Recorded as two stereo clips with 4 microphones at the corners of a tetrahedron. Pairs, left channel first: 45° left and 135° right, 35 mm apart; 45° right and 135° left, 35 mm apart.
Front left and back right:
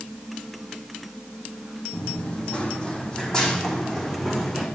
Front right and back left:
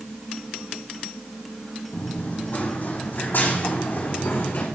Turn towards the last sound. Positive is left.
turn(degrees=-35)